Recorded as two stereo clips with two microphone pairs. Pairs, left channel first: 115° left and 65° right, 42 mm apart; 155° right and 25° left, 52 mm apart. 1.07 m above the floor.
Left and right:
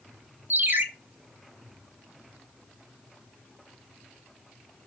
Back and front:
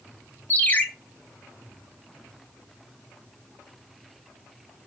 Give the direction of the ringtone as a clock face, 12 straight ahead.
3 o'clock.